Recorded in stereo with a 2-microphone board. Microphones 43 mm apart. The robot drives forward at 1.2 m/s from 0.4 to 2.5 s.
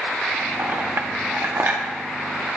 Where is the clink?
50° right (ahead or behind), 1.1 m; by 1.8 s 45° right (ahead or behind), 1.3 m.